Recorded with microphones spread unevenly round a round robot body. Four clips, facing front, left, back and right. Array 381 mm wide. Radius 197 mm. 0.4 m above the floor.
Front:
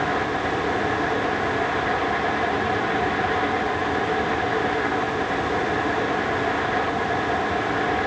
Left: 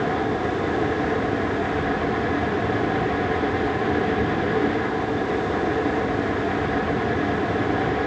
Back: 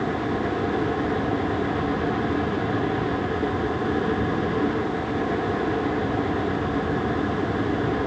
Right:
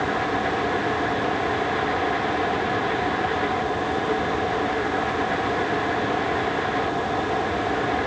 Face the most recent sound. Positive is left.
No sound to turn to.